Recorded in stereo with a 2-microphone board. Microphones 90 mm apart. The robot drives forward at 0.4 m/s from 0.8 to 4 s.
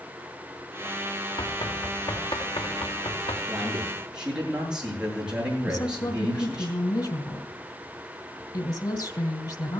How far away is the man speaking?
About 8 m.